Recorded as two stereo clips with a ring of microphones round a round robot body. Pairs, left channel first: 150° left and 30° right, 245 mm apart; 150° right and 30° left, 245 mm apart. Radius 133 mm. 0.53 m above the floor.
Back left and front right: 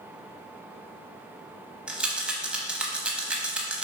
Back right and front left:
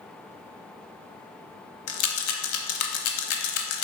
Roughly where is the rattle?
Behind right.